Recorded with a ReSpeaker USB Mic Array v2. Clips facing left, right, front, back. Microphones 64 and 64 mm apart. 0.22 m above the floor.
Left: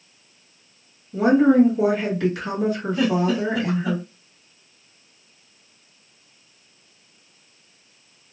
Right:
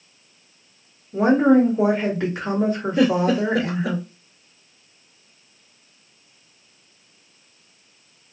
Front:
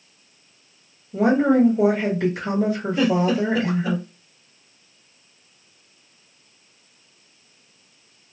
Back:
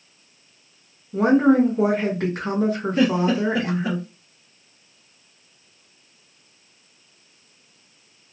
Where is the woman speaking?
150° right, 2 m.